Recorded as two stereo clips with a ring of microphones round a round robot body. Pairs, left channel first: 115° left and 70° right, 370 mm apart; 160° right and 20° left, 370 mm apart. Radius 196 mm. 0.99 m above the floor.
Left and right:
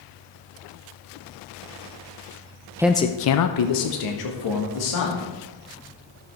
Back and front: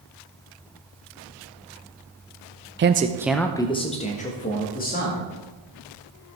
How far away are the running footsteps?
I don't hear running footsteps.